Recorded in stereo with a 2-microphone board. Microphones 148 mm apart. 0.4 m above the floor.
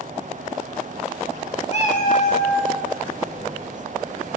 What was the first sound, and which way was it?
A cat meowing, 50° left (ahead or behind).